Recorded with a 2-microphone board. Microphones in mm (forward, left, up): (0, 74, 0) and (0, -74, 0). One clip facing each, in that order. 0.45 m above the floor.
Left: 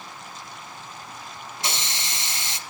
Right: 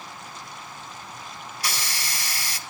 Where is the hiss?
25° left (ahead or behind), 0.7 m.